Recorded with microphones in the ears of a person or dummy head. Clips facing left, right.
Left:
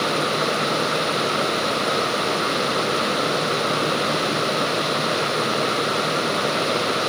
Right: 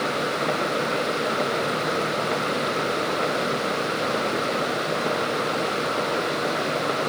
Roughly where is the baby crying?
No baby crying in this recording.